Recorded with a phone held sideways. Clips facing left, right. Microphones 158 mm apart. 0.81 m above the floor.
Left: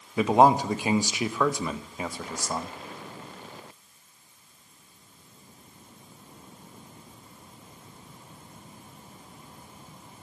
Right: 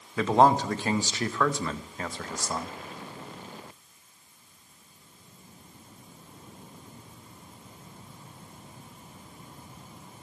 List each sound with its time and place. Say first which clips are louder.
0.2 s a man speaking: left 2 dB; 10° left (ahead or behind), 0.8 m